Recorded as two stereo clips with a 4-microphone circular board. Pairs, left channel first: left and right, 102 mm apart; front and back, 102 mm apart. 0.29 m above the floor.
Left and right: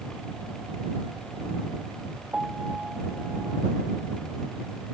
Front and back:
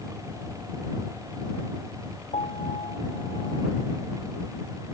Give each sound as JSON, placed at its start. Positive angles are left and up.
{"t": 2.3, "sound": "a piano", "azimuth_deg": -10}